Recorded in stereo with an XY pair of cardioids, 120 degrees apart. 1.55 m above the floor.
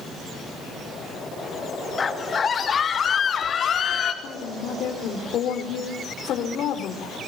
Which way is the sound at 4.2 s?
60° left.